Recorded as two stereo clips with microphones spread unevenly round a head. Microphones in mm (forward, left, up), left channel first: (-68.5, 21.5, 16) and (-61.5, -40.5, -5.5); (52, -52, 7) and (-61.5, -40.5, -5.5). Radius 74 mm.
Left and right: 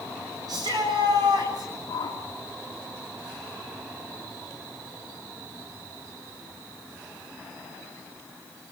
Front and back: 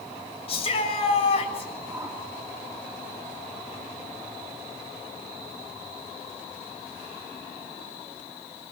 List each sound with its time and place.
0.5 s a shout: 40° right, 7 m
1.9 s a whoosh: 95° left, 5.5 m